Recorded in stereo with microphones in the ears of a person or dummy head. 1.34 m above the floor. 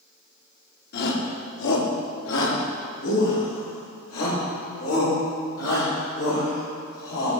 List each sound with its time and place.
0.9 s a shout: 60° left (ahead or behind), 2 m; by 7.4 s 80° left, 6 m